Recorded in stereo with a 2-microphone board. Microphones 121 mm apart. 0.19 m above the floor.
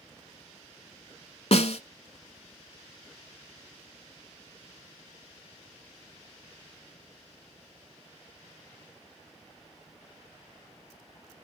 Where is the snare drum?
60° left (ahead or behind), 0.9 m.